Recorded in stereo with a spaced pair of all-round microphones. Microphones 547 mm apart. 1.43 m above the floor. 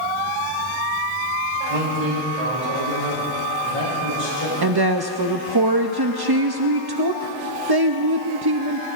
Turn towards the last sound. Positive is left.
turn(degrees=-40)  # may be behind; listen again after turning